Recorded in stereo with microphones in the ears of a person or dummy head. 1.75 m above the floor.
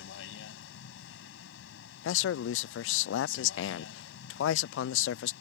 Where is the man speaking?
80° left.